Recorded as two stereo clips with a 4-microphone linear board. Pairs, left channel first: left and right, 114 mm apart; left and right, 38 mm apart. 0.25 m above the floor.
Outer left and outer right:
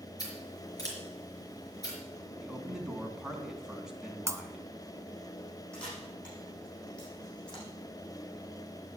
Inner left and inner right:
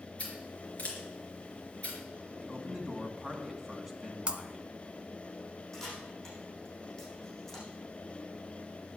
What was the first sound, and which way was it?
Scissors, 30° left (ahead or behind).